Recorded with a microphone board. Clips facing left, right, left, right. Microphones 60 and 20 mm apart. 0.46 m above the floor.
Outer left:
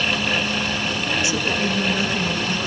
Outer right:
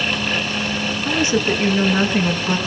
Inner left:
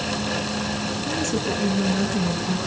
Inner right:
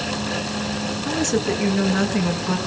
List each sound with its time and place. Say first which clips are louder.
1.1 s a woman speaking: outer right 6 dB, inner right 4 dB; 35° right (ahead or behind), 6 m